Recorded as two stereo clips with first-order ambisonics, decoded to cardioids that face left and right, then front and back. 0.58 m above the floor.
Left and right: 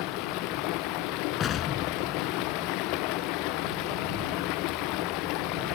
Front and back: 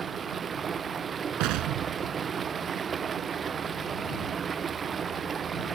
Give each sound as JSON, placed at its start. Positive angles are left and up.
{"t": 0.0, "sound": "running water", "azimuth_deg": 110}
{"t": 1.4, "sound": "an explosion", "azimuth_deg": 150}